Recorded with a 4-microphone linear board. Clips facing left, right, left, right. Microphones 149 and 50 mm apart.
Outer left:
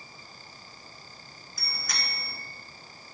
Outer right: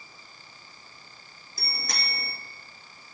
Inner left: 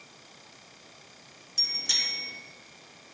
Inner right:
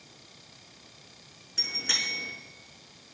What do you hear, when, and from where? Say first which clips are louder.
1.6 s a bicycle bell: outer right 2 dB, inner right 3 dB; 30° right (ahead or behind), 5 m